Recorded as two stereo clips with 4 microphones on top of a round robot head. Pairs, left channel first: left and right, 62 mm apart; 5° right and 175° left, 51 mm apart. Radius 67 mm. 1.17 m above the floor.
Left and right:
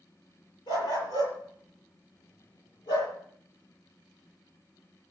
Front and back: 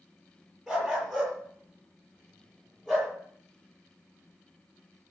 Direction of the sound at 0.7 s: 85° left.